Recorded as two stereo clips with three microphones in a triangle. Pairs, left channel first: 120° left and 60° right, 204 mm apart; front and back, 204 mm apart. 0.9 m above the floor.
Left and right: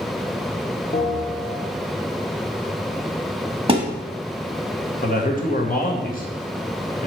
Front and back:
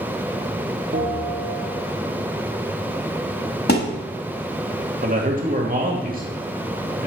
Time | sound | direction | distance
0.9 | a bell | 165° left | 1.1 m
3.7 | a thud | 5° right | 1.1 m
5.0 | a man speaking | 150° left | 1.4 m